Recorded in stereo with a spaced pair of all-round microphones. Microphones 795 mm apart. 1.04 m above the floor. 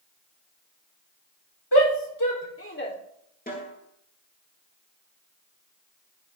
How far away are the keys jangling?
No keys jangling in this recording.